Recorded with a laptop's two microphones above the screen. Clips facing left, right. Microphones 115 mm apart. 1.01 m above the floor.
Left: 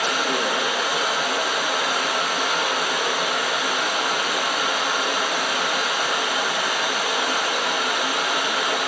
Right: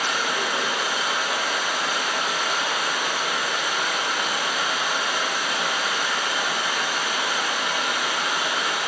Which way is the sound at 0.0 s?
70° left (ahead or behind).